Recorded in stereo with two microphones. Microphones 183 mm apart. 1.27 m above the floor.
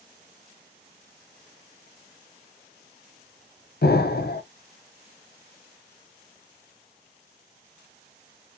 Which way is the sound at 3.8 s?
65° left (ahead or behind).